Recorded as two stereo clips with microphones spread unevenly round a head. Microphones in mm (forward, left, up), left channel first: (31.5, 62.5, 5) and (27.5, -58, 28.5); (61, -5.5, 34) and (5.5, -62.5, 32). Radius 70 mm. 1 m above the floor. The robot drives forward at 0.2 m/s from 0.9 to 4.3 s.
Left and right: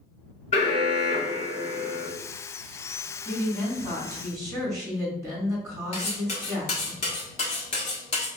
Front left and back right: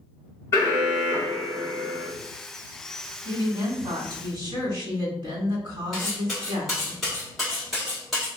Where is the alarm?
105° left, 2 m; by 2.1 s 110° left, 2 m.